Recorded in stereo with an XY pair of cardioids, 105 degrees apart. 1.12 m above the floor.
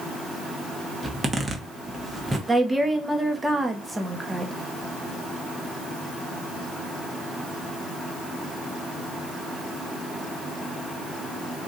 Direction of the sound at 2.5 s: 10° right.